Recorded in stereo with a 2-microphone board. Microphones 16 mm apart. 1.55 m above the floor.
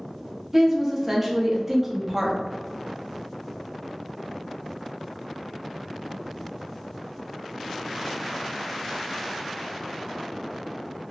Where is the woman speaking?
20° right (ahead or behind), 0.7 m.